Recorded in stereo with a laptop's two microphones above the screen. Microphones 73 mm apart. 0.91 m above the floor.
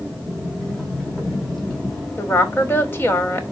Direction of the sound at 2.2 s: 30° left (ahead or behind).